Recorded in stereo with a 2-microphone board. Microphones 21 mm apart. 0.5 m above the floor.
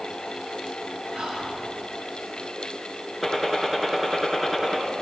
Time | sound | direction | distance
1.1 | whispering | 75° right (ahead or behind) | 6.5 m
3.2 | a gunshot | centre (ahead or behind) | 1.9 m